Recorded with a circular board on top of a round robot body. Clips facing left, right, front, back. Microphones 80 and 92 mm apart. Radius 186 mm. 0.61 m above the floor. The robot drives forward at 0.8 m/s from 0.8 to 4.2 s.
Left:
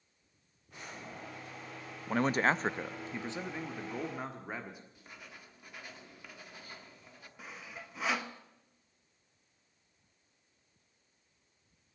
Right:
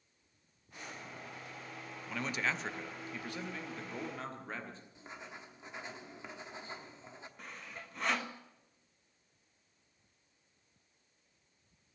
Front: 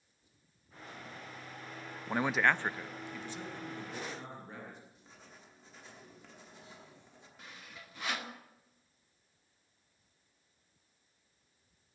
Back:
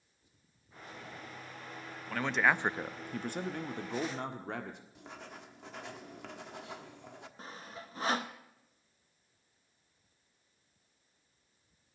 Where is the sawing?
170° left, 1.3 m.